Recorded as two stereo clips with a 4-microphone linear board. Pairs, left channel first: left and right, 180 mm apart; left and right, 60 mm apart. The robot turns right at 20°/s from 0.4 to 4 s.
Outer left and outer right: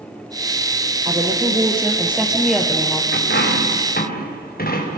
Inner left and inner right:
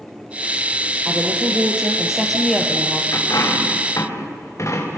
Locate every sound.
1.1 s a woman speaking: 30° right, 3.5 m; by 3.0 s 10° left, 3.5 m
3.1 s a dropped coin: 75° left (ahead or behind), 5 m; by 5.0 s 55° left (ahead or behind), 5 m